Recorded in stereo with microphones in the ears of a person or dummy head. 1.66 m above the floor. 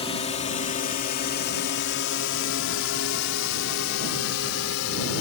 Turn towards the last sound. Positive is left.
turn(degrees=85)